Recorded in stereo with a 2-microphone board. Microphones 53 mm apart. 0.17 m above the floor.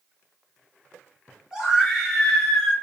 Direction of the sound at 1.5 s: 15° right (ahead or behind).